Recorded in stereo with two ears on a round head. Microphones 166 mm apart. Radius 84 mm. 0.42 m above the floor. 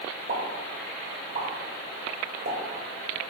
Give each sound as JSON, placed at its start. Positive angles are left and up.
{"t": 0.3, "sound": "a pop", "side_deg": -55, "distance_m": 1.2}